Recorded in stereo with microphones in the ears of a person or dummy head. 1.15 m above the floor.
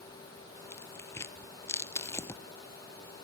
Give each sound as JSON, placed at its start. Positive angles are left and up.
{"t": 0.7, "sound": "tearing paper", "side_deg": 15, "distance_m": 0.9}